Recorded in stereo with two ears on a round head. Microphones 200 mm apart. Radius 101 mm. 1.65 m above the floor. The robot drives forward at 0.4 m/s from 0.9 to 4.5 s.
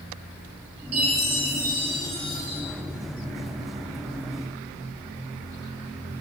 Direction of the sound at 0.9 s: 45° right (ahead or behind).